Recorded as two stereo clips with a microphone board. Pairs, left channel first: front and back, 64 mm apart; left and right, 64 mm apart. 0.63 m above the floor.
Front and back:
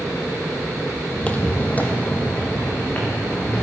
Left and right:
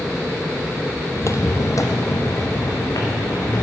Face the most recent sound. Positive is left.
turn(degrees=65)